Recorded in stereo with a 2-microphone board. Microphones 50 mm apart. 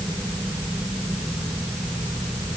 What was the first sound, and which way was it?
Only background noise.